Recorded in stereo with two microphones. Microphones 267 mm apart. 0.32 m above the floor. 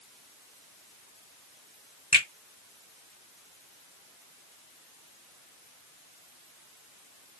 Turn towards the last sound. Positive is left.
turn(degrees=20)  # may be behind; listen again after turning